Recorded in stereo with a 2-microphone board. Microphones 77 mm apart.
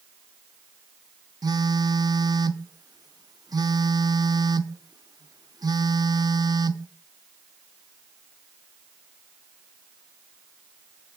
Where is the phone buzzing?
55° right (ahead or behind), 0.6 m.